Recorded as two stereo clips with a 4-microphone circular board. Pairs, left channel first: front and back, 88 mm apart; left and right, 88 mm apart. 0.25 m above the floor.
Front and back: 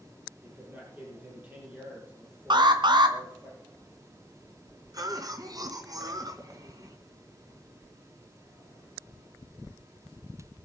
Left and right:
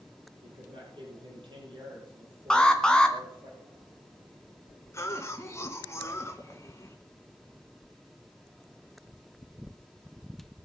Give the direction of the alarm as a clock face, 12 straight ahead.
6 o'clock.